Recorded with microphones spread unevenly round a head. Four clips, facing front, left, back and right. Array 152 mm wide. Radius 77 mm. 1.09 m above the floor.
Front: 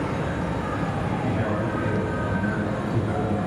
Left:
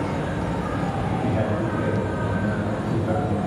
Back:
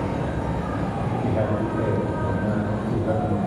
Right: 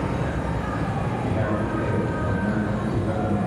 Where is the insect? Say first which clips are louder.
Left 1 dB, back 1 dB; 125° left, 2.5 m.